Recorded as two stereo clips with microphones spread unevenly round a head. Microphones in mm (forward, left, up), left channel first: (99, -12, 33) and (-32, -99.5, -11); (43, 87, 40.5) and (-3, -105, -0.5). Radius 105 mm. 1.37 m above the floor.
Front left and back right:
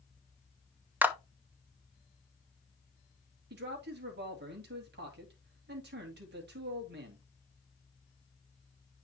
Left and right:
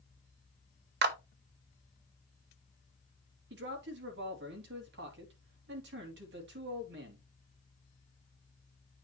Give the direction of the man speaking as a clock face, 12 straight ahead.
5 o'clock.